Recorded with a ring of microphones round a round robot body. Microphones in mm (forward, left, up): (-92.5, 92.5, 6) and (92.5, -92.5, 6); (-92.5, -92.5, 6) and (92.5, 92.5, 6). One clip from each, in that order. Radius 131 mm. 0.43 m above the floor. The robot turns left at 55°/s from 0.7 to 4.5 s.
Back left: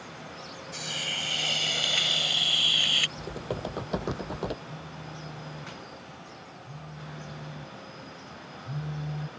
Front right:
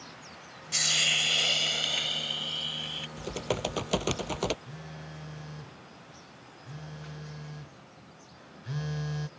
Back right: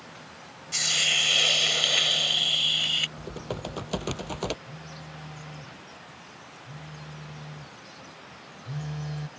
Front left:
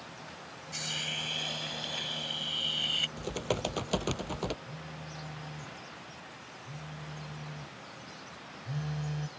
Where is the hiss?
80° right; by 3.1 s 150° left.